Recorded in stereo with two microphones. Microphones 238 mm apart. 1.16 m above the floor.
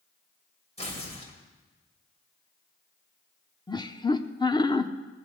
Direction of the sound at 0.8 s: 25° left (ahead or behind).